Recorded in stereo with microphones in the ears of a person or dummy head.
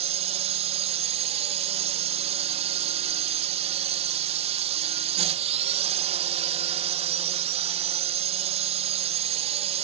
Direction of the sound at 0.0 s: 35° right (ahead or behind).